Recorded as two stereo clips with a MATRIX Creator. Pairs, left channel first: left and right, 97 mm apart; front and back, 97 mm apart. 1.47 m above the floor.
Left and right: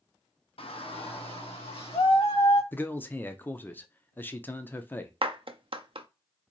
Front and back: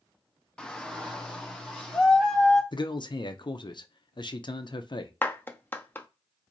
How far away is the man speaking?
About 0.6 m.